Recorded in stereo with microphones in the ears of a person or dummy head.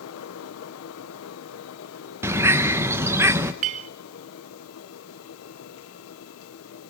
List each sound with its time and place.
0.0 s a fan: 85° left, 1.7 m
2.2 s a bird: 10° right (ahead or behind), 1.0 m
3.6 s a clink: 35° right (ahead or behind), 0.6 m